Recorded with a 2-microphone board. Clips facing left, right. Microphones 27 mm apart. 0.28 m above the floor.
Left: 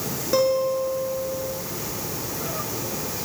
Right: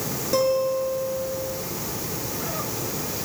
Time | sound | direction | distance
0.3 | a guitar | 10° left (ahead or behind) | 5 m